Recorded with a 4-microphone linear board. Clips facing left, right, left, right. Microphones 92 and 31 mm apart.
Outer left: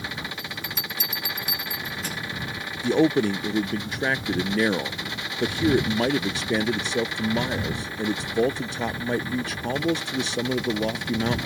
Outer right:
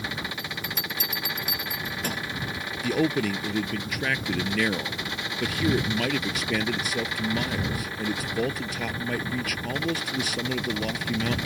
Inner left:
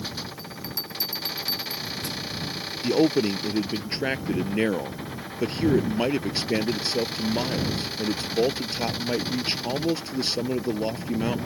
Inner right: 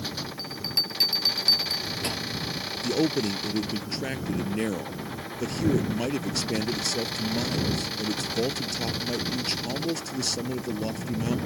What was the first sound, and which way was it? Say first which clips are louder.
A bell: outer right 1 dB, inner right 6 dB; 55° right (ahead or behind).